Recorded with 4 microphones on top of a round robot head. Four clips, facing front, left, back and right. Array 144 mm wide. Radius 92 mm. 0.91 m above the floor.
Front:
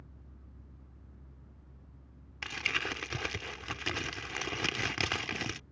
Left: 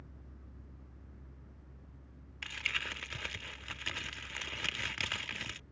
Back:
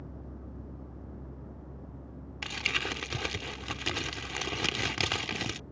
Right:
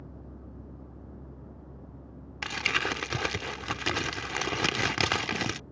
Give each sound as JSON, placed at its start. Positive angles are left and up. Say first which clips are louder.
{"t": 0.0, "sound": "a vehicle", "louder": "right 11 dB, back 13 dB", "azimuth_deg": -140}
{"t": 2.4, "sound": "crumpling", "louder": "right 11 dB, back 1 dB", "azimuth_deg": -95}